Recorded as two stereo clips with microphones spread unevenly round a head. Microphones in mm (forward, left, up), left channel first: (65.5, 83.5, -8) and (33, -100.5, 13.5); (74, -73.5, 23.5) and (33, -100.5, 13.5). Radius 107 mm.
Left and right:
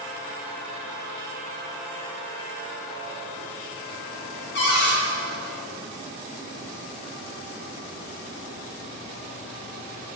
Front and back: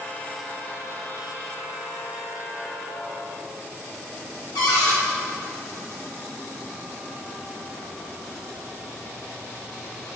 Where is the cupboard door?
45° left, 1.8 m.